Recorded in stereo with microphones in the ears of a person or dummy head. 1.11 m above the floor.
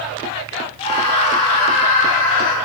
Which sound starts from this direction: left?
A scream, at 0.8 s.